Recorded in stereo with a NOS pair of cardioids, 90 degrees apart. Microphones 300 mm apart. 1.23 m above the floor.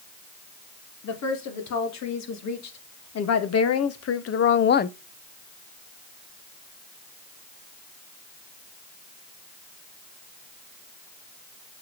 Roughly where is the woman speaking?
Ahead left.